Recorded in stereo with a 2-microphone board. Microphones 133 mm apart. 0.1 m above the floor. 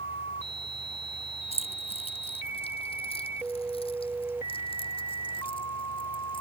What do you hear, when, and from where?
1.5 s keys jangling: 50° left (ahead or behind); by 6.4 s 40° left (ahead or behind)